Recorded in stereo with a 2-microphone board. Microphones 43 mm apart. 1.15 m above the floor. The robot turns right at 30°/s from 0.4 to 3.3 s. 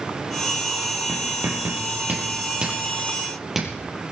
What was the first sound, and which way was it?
Writing, 70° right (ahead or behind).